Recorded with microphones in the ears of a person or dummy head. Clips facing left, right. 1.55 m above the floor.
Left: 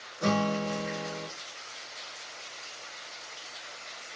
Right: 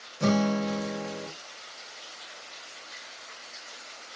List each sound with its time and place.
0.2 s a guitar: 45° right (ahead or behind), 1.2 m